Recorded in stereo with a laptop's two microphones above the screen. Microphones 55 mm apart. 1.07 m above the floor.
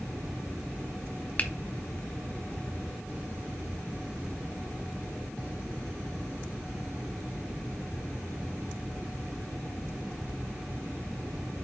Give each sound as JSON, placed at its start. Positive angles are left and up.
{"t": 1.4, "sound": "a finger snap", "side_deg": 30, "distance_m": 0.7}